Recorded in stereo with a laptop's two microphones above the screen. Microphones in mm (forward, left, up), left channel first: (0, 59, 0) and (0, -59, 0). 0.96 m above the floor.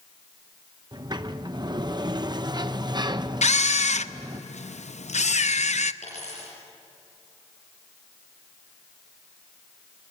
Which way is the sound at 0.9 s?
35° right (ahead or behind).